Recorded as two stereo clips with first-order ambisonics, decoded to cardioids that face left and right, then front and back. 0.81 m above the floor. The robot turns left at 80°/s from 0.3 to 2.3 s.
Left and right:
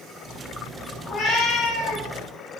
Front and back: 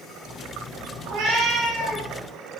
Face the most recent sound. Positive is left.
turn(degrees=70)